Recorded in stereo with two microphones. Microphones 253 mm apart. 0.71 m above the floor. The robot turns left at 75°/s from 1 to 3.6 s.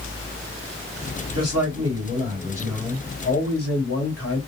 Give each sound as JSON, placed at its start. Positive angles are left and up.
{"t": 1.4, "sound": "a man speaking", "azimuth_deg": -75, "distance_m": 2.0}